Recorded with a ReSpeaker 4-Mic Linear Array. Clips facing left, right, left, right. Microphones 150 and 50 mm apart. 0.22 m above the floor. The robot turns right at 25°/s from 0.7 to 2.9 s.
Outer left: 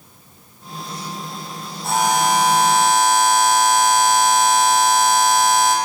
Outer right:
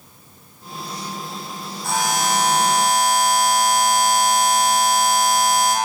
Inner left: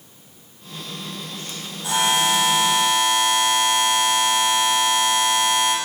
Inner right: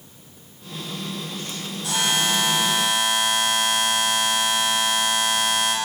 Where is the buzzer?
25° left (ahead or behind), 8 m; by 5.8 s centre (ahead or behind), 8 m.